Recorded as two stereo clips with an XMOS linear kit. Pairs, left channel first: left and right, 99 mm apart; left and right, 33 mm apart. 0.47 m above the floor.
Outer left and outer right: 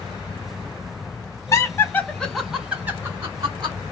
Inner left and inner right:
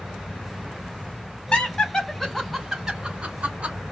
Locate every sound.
1.5 s laughter: 30° left (ahead or behind), 1.1 m; by 3.8 s 40° right (ahead or behind), 1.3 m